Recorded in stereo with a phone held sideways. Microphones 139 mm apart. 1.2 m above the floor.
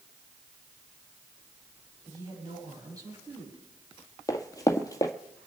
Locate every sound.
2.1 s a woman speaking: 25° right (ahead or behind), 7.5 m
4.3 s running footsteps: 25° left (ahead or behind), 1.7 m